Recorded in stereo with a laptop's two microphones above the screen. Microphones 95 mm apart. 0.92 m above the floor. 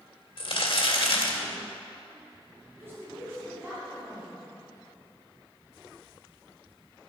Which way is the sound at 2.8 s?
25° right (ahead or behind).